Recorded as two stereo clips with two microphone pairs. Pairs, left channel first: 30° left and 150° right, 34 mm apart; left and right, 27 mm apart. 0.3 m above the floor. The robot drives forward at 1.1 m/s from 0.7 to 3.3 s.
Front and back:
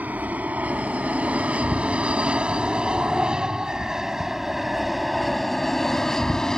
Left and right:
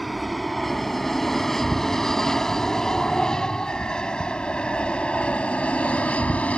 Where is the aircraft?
Straight behind; by 6.6 s 100° left.